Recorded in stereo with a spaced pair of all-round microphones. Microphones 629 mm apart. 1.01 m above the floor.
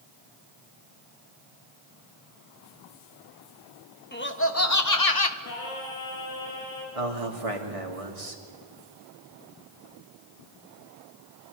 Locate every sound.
4.1 s laughter: 15° left (ahead or behind), 1.6 m; by 5.3 s 40° left (ahead or behind), 1.0 m
5.4 s singing: 75° left (ahead or behind), 3.5 m
7.0 s a man speaking: 70° right (ahead or behind), 2.5 m